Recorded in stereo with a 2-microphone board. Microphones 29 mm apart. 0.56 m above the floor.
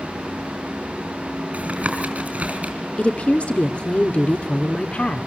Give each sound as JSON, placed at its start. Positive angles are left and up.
{"t": 1.5, "sound": "tapping", "side_deg": -50, "distance_m": 4.5}
{"t": 3.0, "sound": "a woman speaking", "side_deg": 45, "distance_m": 1.3}